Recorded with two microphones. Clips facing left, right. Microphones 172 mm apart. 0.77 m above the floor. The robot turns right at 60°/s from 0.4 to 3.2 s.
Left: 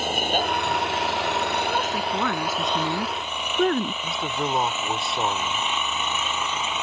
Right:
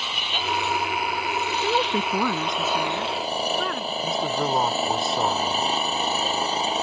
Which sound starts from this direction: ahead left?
An engine running, at 0.0 s.